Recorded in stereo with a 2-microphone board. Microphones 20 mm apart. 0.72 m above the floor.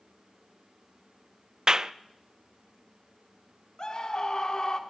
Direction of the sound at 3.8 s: 45° left (ahead or behind).